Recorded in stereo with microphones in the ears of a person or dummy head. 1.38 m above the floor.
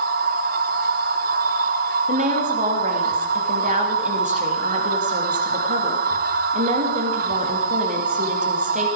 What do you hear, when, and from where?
0.0 s a machine running: 45° right (ahead or behind), 0.9 m
2.1 s a woman speaking: 40° right (ahead or behind), 3 m